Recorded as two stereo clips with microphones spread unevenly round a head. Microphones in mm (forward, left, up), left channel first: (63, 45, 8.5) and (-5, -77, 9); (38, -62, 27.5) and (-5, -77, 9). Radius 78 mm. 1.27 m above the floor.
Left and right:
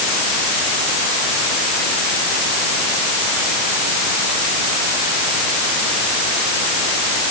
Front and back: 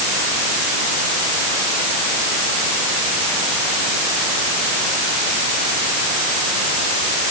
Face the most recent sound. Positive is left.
No sound to turn to.